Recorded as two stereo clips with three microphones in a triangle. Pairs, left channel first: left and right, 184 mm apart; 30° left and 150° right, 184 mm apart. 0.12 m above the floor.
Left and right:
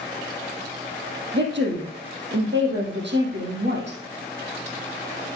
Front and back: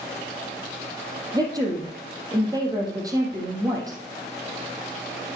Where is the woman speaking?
80° right, 4 m.